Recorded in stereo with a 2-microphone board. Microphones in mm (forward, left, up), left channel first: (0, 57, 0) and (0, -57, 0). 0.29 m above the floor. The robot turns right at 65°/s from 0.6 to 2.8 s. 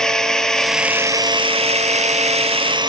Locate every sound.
0.0 s a drone: 5° left (ahead or behind); by 2.9 s 40° right (ahead or behind)